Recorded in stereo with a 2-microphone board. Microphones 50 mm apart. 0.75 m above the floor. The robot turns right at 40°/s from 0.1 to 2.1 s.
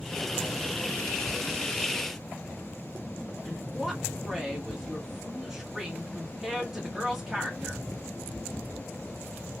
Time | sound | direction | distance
3.5 | a woman speaking | 10° right (ahead or behind) | 1.3 m